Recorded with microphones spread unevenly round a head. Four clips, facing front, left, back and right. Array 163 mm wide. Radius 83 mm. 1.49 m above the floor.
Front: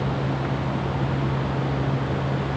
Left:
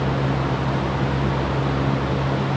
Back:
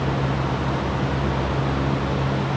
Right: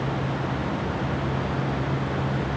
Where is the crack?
No crack in this recording.